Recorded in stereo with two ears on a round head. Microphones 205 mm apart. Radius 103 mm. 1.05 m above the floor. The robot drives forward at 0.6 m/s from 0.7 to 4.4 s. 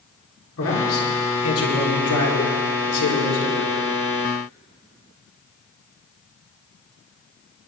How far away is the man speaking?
About 4 m.